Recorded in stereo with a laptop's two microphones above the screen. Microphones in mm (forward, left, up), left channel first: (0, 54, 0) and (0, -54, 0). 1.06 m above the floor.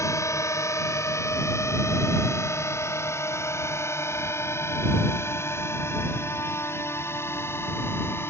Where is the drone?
30° left (ahead or behind); by 8.3 s 20° left (ahead or behind).